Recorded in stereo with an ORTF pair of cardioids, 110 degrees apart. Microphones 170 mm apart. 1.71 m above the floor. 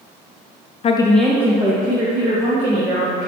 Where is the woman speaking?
40° left, 0.6 m; by 3.3 s 35° right, 3 m.